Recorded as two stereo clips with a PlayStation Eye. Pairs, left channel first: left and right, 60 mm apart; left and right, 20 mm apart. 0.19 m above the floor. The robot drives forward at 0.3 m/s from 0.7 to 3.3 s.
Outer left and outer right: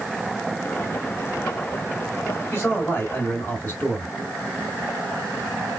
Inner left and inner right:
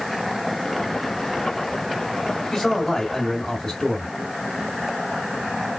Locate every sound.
2.5 s a man speaking: 25° left (ahead or behind), 1.6 m; by 4.1 s 20° left (ahead or behind), 1.7 m